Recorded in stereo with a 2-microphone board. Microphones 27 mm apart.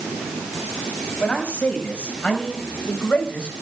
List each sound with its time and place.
1.2 s a man speaking: 50° left (ahead or behind), 6.5 m; by 3.5 s 40° left (ahead or behind), 5.5 m